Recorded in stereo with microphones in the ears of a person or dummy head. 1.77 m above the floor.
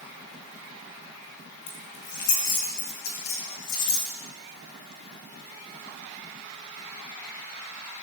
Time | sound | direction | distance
1.7 | keys jangling | 25° left (ahead or behind) | 1.5 m